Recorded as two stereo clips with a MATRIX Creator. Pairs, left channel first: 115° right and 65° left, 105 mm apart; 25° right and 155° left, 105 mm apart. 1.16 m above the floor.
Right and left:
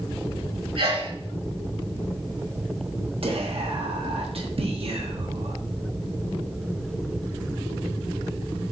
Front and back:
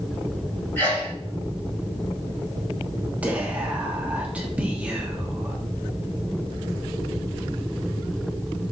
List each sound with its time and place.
0.8 s a sneeze: 45° left, 5 m
3.2 s whispering: 80° left, 1.3 m